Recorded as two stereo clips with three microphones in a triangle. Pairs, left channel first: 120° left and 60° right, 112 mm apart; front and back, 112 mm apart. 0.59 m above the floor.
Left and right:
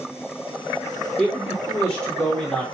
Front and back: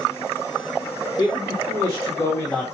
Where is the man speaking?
35° left, 2 m; by 2.6 s 65° left, 1.1 m.